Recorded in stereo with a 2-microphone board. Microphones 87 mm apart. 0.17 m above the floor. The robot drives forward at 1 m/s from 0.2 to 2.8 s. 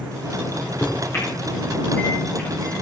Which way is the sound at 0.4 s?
35° left (ahead or behind).